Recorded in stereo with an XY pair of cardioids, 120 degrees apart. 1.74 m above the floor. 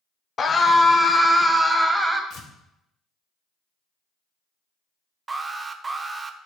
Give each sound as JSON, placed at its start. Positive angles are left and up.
{"t": 0.4, "sound": "a scream", "azimuth_deg": 35, "distance_m": 0.7}
{"t": 2.3, "sound": "tearing paper", "azimuth_deg": 60, "distance_m": 1.3}
{"t": 5.3, "sound": "an alarm", "azimuth_deg": -25, "distance_m": 0.6}